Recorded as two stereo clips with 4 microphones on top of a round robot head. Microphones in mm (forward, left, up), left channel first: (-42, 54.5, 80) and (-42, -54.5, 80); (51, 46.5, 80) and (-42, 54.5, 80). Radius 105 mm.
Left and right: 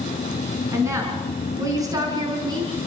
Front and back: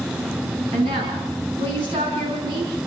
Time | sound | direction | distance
0.7 | a woman speaking | 155° right | 5 m